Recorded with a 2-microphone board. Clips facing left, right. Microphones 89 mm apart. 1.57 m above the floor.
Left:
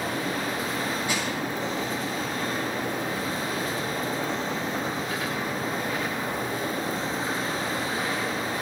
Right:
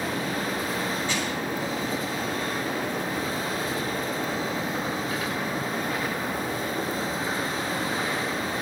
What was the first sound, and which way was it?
Crushing, 15° left (ahead or behind).